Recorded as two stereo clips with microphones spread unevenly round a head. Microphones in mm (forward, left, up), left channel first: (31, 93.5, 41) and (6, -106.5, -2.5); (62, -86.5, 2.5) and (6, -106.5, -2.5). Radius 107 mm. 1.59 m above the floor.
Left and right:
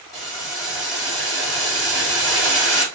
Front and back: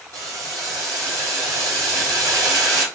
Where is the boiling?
165° left, 1.7 m.